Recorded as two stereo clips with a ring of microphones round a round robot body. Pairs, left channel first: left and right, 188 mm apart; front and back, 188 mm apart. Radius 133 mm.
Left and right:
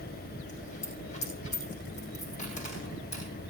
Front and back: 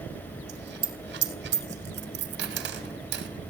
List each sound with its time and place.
0.5 s a dropped coin: 155° left, 3 m